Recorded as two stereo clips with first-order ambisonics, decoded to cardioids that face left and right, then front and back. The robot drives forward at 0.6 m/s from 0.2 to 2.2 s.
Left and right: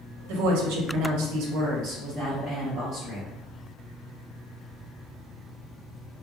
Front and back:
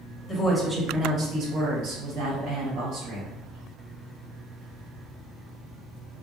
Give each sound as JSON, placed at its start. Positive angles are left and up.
{"t": 0.3, "sound": "a woman speaking", "azimuth_deg": -75, "distance_m": 0.7}